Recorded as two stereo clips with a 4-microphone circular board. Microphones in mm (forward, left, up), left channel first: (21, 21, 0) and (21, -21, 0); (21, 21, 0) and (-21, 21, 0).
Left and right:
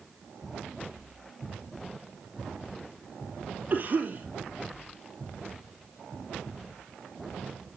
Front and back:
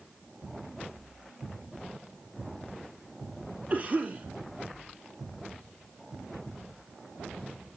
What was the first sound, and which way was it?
A cough, 135° right.